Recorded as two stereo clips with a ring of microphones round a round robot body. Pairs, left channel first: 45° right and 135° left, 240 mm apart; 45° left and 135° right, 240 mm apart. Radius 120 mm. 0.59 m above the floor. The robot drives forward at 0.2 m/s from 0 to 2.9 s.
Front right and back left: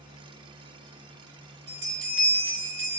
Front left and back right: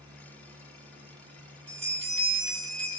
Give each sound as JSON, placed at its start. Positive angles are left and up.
{"t": 1.7, "sound": "a bell", "azimuth_deg": 160, "distance_m": 2.0}